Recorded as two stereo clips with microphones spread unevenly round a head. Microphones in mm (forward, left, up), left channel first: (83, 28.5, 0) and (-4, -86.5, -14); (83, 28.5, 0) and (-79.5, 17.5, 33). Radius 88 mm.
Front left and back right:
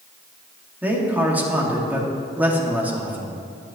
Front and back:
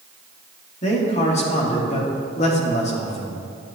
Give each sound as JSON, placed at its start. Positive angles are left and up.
{"t": 0.8, "sound": "a man speaking", "azimuth_deg": -50, "distance_m": 1.9}